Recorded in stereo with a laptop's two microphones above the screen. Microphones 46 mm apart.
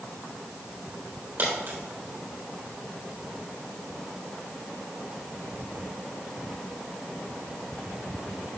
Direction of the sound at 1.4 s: 50° right (ahead or behind).